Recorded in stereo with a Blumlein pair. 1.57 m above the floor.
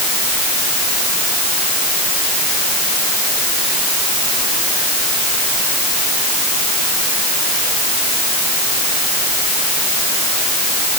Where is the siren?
I don't hear a siren.